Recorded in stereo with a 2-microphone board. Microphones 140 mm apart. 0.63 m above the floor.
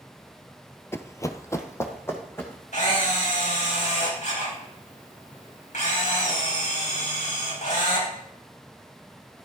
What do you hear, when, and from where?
0.9 s running footsteps: 20° left (ahead or behind), 0.6 m; by 2.6 s 15° left (ahead or behind), 2.5 m
2.7 s a camera shutter: 65° left (ahead or behind), 4 m